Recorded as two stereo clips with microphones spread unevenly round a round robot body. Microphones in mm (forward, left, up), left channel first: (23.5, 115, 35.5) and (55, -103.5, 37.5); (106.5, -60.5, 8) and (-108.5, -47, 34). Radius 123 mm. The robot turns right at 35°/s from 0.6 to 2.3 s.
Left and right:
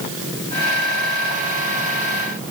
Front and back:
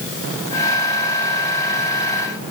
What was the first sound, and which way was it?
Only background noise.